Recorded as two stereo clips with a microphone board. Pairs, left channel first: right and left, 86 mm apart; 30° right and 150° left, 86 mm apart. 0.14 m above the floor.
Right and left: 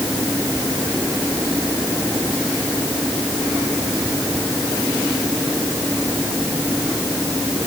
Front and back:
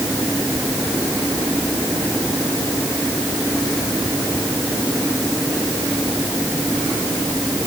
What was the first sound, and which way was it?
Only background noise.